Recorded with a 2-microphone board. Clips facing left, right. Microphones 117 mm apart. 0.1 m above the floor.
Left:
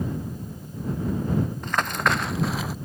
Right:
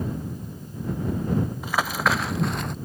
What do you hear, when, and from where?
1.6 s running footsteps: 10° right (ahead or behind); by 2.8 s 5° left (ahead or behind)